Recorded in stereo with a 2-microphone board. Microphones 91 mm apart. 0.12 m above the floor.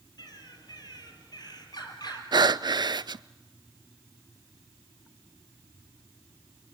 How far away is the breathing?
About 0.5 m.